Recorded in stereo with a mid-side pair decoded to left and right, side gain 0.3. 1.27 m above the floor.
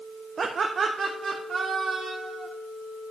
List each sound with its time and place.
0.4 s laughter: 60° right, 0.8 m; by 2.5 s 75° right, 1.9 m